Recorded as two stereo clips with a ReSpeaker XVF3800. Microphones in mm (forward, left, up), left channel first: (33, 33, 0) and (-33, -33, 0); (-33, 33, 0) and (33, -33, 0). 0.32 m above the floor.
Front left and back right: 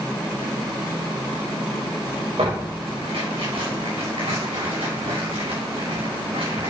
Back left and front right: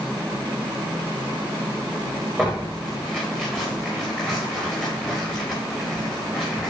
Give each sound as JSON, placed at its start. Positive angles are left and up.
{"t": 2.4, "sound": "tearing paper", "azimuth_deg": -140, "distance_m": 7.0}